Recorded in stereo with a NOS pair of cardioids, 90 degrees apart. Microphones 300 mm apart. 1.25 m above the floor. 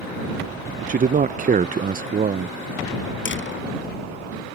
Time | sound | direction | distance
0.9 | a man speaking | 25° right | ?
3.2 | a door slam | 40° left | ?